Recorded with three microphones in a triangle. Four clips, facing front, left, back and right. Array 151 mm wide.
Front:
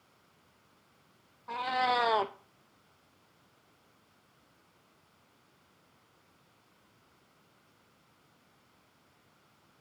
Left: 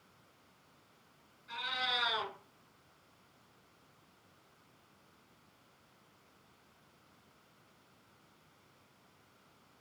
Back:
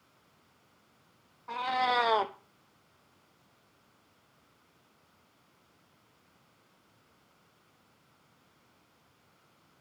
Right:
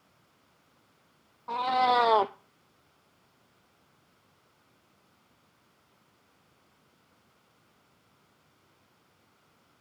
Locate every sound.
1.5 s a cat meowing: 95° right, 0.7 m